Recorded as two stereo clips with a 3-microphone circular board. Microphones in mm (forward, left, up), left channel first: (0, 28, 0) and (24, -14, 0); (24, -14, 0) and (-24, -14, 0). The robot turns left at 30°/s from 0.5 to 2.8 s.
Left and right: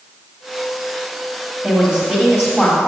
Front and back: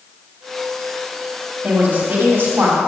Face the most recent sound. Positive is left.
turn(degrees=170)